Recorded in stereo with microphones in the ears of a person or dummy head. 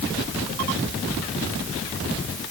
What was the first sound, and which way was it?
Only background noise.